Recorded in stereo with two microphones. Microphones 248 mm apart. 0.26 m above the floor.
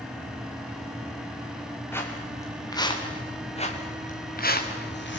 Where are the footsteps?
10° left (ahead or behind), 5 m; by 5.2 s 50° left (ahead or behind), 3 m.